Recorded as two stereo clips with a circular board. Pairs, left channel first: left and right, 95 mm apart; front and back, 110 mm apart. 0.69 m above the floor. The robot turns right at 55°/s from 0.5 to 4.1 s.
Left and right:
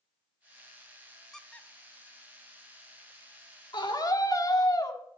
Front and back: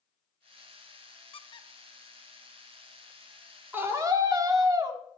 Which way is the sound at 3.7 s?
110° left.